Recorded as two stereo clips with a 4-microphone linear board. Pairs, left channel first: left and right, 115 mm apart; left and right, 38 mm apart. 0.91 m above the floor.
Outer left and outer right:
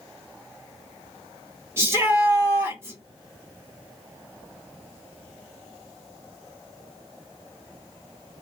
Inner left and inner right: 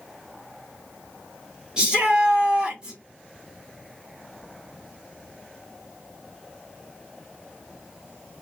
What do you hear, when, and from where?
1.8 s a shout: 20° right (ahead or behind), 2.5 m